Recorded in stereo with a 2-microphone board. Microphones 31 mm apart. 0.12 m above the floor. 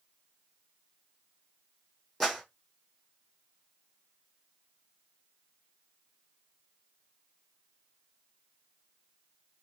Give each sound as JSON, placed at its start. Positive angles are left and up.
{"t": 2.2, "sound": "a clap", "side_deg": 0, "distance_m": 4.0}